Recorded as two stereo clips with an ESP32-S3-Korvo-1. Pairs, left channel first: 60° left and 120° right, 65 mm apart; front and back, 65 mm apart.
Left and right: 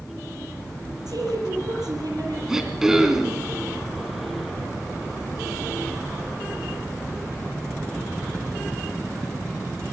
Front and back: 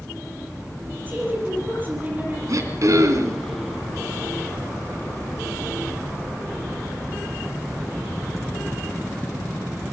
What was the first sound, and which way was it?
A woman speaking, 120° right.